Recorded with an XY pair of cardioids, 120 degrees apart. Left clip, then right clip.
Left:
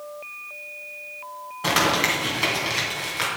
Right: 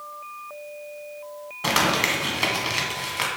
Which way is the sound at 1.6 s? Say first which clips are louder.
Left 1 dB; 15° right.